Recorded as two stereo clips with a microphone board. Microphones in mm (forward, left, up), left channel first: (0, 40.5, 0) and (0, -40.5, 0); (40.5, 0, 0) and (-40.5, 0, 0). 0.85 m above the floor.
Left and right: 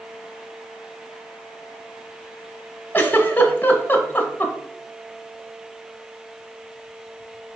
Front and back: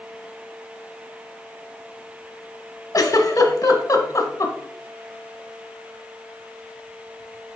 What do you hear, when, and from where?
2.9 s a giggle: 30° left, 0.8 m